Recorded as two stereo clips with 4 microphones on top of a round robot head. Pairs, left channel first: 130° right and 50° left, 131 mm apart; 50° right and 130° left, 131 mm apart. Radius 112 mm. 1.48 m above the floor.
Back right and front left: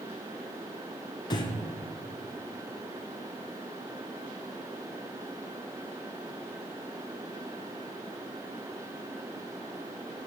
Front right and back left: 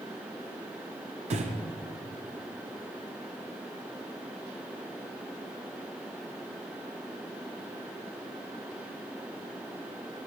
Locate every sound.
1.3 s breathing: 170° left, 0.7 m